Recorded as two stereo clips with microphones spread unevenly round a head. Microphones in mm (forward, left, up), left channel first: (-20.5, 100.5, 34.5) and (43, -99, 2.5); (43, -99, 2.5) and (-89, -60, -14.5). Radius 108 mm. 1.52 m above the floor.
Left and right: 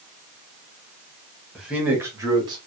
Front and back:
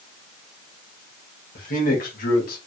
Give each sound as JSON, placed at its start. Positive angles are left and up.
{"t": 1.6, "sound": "a man speaking", "azimuth_deg": 20, "distance_m": 1.7}